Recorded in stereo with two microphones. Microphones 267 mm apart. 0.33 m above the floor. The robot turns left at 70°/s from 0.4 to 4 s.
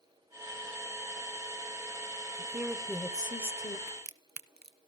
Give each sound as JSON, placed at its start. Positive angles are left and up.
{"t": 2.4, "sound": "a woman speaking", "side_deg": -10, "distance_m": 1.1}
{"t": 3.9, "sound": "a crack", "side_deg": -80, "distance_m": 0.6}